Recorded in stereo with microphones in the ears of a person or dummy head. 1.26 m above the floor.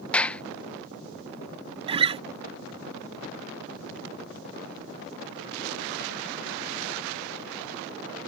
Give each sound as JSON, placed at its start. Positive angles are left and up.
{"t": 0.1, "sound": "a clap", "side_deg": 10}
{"t": 1.9, "sound": "a guitar", "side_deg": -30}